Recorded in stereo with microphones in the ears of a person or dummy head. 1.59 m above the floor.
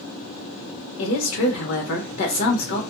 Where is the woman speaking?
80° left, 1.2 m.